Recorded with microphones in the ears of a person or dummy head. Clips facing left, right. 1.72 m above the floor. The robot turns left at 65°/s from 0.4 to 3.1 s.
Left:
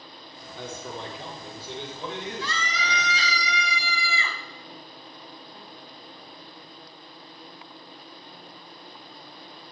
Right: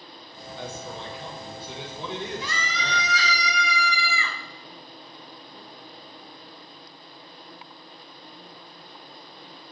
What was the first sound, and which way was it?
A man speaking, 75° left.